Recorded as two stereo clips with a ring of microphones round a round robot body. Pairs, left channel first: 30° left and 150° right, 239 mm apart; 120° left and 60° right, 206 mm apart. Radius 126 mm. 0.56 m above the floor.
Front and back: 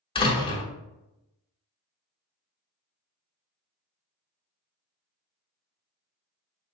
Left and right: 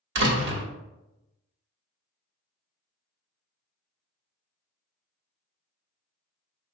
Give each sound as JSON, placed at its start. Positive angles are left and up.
{"t": 0.1, "sound": "a door slam", "azimuth_deg": -35, "distance_m": 1.0}